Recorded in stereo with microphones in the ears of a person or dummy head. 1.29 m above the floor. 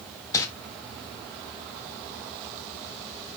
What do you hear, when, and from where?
0.3 s crumpling: 15° left (ahead or behind), 1.6 m